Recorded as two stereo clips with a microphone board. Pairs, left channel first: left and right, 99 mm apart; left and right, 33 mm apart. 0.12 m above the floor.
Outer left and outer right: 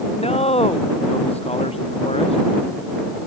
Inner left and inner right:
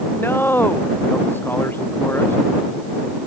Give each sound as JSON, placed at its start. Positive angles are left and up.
{"t": 0.1, "sound": "a man speaking", "side_deg": 85}